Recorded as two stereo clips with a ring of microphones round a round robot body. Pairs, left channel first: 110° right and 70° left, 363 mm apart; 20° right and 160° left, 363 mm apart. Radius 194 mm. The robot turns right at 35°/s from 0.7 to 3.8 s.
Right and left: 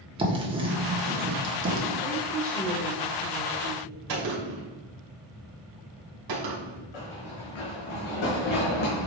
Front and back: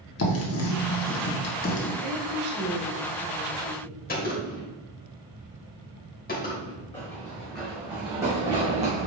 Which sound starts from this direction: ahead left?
A gunshot, at 4.1 s.